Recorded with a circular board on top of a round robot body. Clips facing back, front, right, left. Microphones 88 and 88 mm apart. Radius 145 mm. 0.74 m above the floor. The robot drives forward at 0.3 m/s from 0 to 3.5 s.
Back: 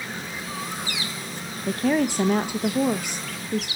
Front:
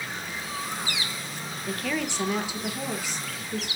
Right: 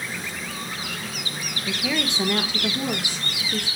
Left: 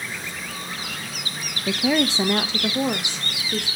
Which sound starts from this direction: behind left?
A woman speaking, at 1.7 s.